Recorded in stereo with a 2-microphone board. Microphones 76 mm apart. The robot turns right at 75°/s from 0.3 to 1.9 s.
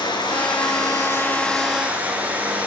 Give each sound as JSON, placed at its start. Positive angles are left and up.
{"t": 0.0, "sound": "running water", "azimuth_deg": 80, "distance_m": 7.5}